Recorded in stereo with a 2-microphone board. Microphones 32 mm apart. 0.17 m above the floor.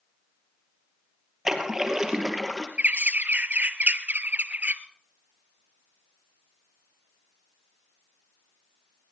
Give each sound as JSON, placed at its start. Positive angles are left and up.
{"t": 1.4, "sound": "a splash", "side_deg": -15, "distance_m": 3.0}
{"t": 2.8, "sound": "a bird", "side_deg": -55, "distance_m": 0.9}